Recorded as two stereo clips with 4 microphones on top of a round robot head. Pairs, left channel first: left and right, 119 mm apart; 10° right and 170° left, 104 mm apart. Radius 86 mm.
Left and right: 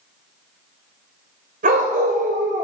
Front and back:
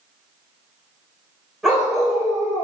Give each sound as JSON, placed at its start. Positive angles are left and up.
{"t": 1.6, "sound": "a dog barking", "azimuth_deg": -100, "distance_m": 3.0}